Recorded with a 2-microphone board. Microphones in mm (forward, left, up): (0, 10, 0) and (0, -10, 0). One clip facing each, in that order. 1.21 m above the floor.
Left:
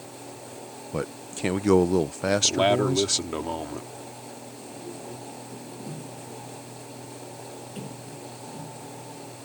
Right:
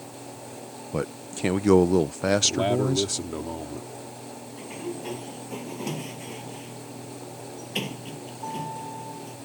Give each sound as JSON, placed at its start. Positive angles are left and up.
{"t": 0.9, "sound": "a man speaking", "side_deg": 0}
{"t": 2.4, "sound": "a man speaking", "side_deg": 35}
{"t": 4.6, "sound": "a sliding door", "side_deg": -80}